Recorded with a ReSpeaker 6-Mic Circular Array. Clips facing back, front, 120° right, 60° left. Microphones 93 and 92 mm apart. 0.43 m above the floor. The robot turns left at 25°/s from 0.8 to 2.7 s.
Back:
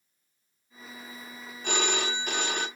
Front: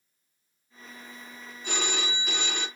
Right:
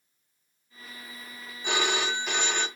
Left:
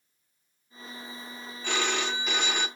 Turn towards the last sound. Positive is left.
turn(degrees=140)